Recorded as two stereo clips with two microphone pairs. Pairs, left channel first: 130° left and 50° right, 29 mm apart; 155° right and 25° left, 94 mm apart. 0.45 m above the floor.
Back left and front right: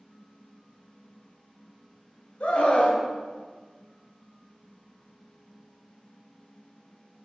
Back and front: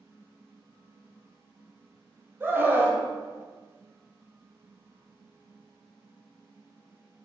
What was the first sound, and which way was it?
A scream, 90° left.